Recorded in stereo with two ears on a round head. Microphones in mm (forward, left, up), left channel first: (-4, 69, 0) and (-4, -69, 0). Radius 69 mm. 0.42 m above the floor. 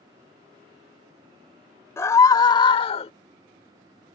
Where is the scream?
20° left (ahead or behind); by 3.1 s 40° left (ahead or behind).